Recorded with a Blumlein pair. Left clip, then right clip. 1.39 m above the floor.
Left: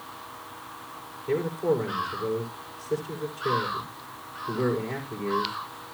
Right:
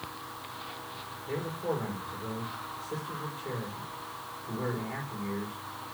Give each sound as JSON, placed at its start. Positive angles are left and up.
{"t": 1.3, "sound": "a man speaking", "azimuth_deg": 55, "distance_m": 5.0}